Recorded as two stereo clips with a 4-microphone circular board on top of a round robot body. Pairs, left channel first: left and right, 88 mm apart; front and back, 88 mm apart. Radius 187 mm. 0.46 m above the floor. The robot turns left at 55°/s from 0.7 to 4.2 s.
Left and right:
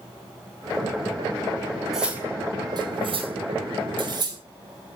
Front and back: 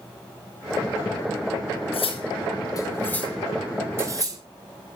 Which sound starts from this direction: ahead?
Cutlery clinking, at 1.9 s.